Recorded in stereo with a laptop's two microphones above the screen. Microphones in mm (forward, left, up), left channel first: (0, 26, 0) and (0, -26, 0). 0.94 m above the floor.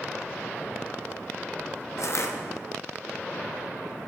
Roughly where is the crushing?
Left.